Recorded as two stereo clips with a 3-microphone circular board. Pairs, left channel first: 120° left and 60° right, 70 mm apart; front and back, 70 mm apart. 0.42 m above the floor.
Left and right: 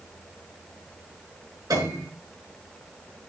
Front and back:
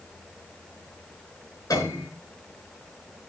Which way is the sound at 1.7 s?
35° right.